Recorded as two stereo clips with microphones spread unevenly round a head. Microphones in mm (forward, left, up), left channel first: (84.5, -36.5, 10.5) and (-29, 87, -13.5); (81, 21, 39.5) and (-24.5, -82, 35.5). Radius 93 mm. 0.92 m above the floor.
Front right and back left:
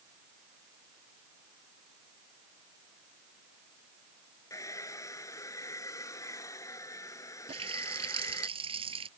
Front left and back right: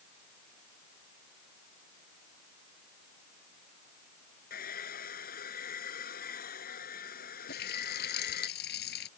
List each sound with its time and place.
4.5 s a hair dryer: 25° left
7.5 s a running tap: 75° left